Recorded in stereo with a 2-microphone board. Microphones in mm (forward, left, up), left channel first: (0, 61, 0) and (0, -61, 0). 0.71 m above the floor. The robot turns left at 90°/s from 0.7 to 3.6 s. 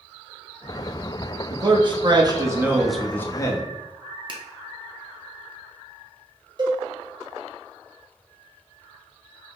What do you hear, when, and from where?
1.5 s a man speaking: 50° right, 0.6 m; by 3.7 s 120° left, 0.6 m
4.3 s a finger snap: 40° right (ahead or behind), 0.6 m
6.6 s a cowbell: 35° right (ahead or behind), 0.8 m